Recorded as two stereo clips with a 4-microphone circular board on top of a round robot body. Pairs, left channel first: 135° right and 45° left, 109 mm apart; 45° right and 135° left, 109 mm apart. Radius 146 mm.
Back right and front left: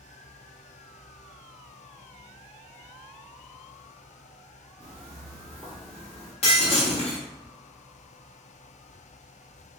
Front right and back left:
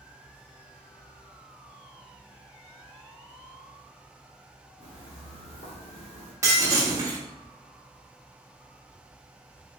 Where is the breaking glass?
160° right, 1.1 m.